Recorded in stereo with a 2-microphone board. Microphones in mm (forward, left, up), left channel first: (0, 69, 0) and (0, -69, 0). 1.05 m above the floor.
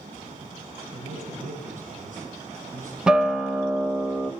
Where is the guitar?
5° right (ahead or behind), 1.1 m.